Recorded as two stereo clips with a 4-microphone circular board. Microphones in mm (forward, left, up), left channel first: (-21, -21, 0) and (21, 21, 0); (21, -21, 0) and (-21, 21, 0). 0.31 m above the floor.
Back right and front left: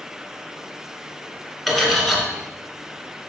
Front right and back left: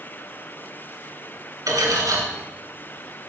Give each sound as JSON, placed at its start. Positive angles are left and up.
{"t": 1.7, "sound": "cutlery clinking", "azimuth_deg": 135, "distance_m": 2.5}